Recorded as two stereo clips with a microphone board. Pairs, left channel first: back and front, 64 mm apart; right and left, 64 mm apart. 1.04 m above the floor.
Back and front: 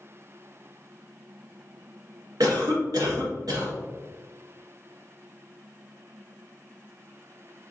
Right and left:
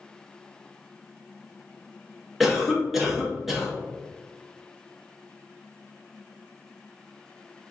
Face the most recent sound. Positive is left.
turn(degrees=5)